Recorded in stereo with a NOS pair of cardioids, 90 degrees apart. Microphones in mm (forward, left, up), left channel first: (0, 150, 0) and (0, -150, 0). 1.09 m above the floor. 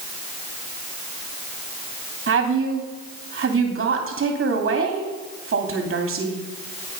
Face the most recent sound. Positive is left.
turn(degrees=-40)